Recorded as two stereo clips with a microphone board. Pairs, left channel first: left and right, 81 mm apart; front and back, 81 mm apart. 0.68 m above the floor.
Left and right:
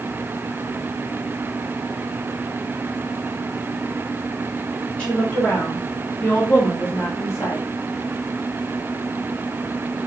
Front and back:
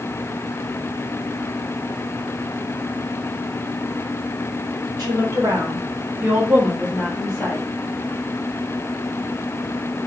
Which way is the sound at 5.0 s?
165° left.